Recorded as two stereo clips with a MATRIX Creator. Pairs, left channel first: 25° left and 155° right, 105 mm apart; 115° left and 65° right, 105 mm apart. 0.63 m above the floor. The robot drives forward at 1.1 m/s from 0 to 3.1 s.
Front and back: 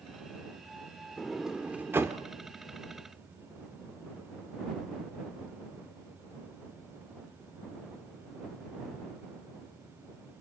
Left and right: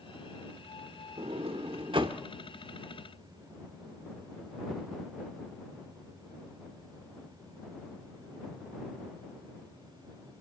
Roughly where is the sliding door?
Ahead right.